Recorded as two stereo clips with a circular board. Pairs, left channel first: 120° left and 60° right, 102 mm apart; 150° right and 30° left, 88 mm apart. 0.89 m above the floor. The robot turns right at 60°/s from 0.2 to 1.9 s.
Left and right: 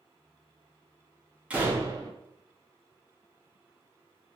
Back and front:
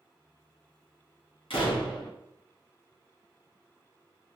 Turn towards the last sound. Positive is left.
turn(degrees=-115)